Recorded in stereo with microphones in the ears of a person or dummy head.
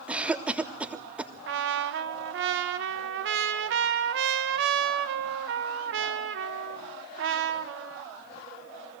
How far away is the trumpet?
About 1.0 m.